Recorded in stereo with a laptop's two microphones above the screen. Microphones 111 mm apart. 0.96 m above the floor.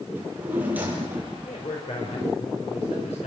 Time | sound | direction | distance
0.1 | a drawer | 15° right (ahead or behind) | 8.5 m
1.4 | a man speaking | 75° left (ahead or behind) | 4 m